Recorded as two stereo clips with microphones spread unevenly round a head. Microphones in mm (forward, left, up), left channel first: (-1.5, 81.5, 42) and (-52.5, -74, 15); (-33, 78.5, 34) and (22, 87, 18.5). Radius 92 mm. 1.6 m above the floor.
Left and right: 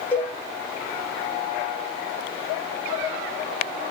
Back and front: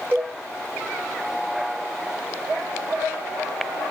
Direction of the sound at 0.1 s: 50° left.